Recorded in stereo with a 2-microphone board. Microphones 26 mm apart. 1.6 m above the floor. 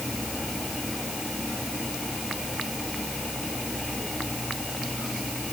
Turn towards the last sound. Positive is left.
No sound to turn to.